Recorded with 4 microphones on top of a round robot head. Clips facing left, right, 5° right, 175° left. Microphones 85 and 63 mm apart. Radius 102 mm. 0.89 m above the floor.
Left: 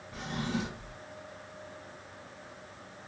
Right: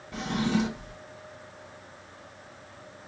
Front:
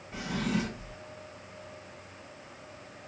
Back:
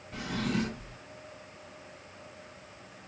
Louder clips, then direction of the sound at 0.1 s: Right 7 dB, even; 85° right.